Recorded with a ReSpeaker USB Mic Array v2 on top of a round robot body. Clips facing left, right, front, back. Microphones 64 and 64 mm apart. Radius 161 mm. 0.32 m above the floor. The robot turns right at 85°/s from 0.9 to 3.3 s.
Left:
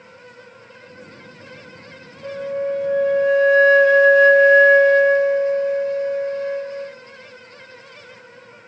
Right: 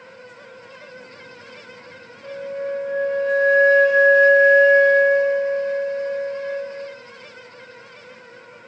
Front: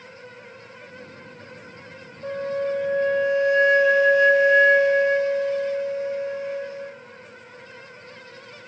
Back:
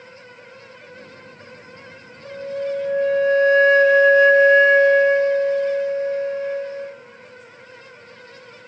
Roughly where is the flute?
Ahead left.